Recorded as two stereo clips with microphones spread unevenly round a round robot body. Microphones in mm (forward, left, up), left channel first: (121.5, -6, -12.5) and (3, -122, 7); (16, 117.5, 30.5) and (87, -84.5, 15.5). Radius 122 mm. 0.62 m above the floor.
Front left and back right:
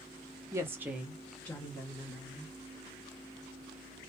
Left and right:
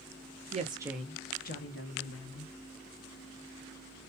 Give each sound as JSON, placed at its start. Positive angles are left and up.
{"t": 0.5, "sound": "a woman speaking", "azimuth_deg": -60, "distance_m": 0.8}